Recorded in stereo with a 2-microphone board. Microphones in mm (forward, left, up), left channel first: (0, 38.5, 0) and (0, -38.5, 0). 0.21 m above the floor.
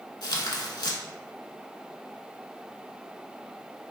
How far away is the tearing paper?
About 0.5 m.